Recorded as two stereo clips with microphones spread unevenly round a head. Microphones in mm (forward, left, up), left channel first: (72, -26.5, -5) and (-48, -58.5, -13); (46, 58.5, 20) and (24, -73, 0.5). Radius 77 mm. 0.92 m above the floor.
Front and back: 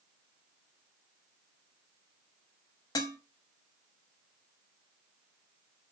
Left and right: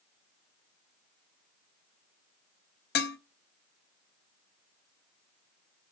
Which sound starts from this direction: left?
Dishes clattering, at 3.0 s.